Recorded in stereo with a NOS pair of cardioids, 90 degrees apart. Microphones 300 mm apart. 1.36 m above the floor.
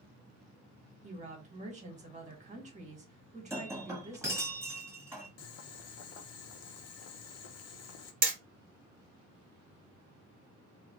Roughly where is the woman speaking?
Ahead.